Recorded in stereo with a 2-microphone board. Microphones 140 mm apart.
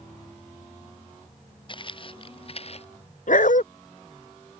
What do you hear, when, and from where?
1.7 s footsteps: 35° left (ahead or behind); by 2.9 s 50° left (ahead or behind)
3.3 s a dog barking: 70° left (ahead or behind)